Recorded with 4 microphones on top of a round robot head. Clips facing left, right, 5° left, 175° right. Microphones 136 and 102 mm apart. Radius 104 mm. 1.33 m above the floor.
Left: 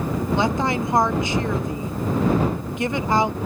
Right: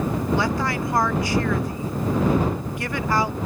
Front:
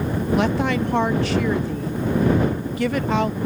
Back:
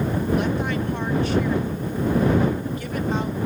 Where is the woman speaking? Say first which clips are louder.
Left 2 dB, front 3 dB; 20° left.